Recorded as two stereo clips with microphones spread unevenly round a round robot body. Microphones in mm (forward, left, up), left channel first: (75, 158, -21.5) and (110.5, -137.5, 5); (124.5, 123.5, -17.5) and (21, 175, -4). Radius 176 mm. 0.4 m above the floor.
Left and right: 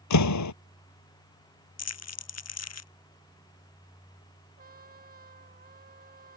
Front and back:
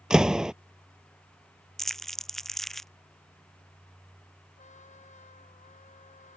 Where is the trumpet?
25° right.